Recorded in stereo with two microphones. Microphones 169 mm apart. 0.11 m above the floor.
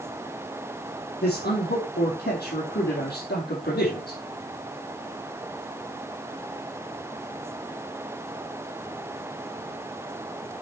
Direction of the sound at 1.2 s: 70° left (ahead or behind).